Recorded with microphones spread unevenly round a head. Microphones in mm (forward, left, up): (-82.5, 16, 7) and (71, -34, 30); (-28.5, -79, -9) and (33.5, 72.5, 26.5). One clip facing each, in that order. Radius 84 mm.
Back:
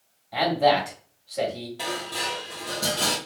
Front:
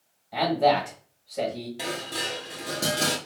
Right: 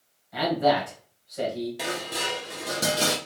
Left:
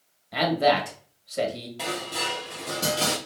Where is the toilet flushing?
I don't hear a toilet flushing.